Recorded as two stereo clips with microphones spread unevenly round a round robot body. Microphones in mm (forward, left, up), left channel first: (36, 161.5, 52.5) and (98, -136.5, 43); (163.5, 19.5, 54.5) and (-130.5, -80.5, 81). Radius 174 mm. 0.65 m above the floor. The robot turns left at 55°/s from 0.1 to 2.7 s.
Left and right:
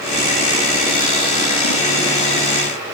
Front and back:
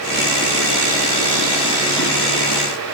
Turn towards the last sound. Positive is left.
No sound to turn to.